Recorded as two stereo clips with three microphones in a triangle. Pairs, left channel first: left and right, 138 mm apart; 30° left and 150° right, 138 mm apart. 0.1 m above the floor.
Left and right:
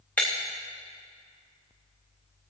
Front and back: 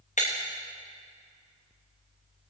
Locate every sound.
0.2 s breaking glass: 10° left, 3.5 m